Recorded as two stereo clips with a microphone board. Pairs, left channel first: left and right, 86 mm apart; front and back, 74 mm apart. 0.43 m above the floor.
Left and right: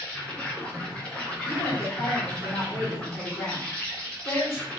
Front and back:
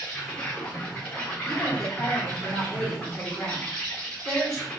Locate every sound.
0.0 s an insect: 45° left, 1.4 m
1.5 s a woman speaking: 75° left, 1.2 m